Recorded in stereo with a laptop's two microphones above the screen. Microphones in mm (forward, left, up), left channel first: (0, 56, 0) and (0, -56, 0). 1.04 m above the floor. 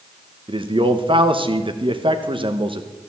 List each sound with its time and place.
0.5 s a man speaking: 50° right (ahead or behind), 1.1 m